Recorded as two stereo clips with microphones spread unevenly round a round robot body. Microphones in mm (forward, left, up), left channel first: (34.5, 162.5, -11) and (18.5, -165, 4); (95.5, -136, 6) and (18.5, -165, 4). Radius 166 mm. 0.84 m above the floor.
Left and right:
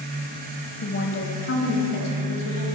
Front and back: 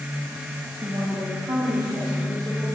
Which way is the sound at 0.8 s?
140° left.